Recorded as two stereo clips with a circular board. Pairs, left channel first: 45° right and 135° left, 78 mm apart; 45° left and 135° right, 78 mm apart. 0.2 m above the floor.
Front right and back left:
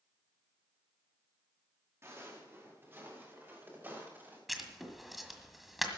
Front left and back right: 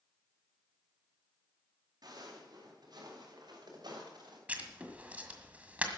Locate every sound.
2.0 s footsteps: 165° right, 6.5 m; by 4.4 s 155° right, 8.5 m
4.5 s writing: 140° right, 1.6 m